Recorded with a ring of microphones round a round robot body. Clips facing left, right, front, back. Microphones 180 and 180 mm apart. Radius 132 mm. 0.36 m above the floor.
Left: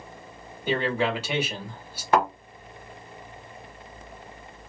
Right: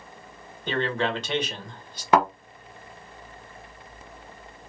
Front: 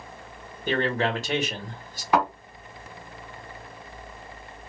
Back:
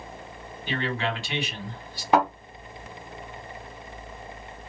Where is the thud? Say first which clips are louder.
Right 2 dB, back 2 dB; 110° right, 1.2 m.